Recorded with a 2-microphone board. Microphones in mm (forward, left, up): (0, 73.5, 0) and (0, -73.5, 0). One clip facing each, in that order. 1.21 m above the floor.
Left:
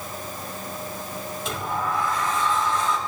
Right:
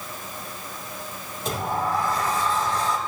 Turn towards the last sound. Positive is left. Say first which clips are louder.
# right 3 dB
turn(degrees=-40)  # may be behind; listen again after turning